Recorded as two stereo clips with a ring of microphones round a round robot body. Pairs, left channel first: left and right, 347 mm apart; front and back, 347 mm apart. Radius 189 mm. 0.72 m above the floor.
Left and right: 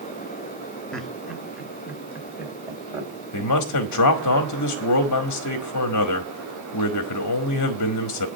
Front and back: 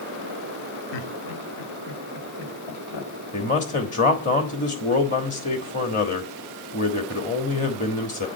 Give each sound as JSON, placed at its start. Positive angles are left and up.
{"t": 0.9, "sound": "laughter", "azimuth_deg": 0, "distance_m": 1.4}
{"t": 3.3, "sound": "a man speaking", "azimuth_deg": 65, "distance_m": 1.3}